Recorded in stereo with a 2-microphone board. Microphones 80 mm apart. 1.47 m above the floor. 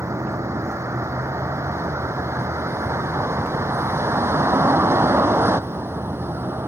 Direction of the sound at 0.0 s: 35° right (ahead or behind).